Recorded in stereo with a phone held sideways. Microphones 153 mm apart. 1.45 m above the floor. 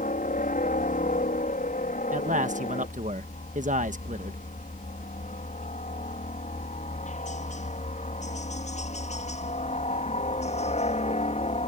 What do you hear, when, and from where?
0.0 s a helicopter: 60° left (ahead or behind); by 11.7 s 45° left (ahead or behind)
2.1 s a man speaking: 55° right (ahead or behind)